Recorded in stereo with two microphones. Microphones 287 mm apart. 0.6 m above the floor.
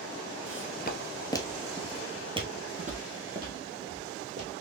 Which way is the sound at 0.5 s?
45° left (ahead or behind).